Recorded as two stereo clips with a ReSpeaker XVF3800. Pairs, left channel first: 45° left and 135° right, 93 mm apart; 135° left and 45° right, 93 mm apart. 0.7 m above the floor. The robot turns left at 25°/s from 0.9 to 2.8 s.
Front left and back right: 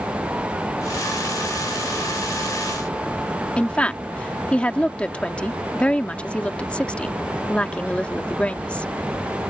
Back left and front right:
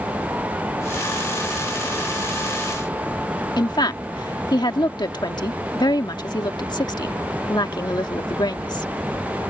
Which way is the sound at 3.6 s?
120° left.